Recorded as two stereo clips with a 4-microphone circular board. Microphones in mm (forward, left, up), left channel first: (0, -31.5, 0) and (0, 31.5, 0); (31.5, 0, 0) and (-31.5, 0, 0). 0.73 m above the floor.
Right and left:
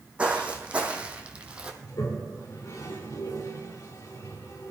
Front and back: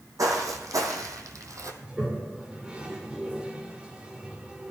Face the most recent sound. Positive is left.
turn(degrees=-105)